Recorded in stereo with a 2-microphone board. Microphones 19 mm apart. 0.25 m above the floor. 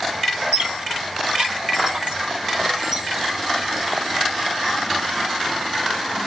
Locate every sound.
0.5 s a squeak: 60° right (ahead or behind), 1.0 m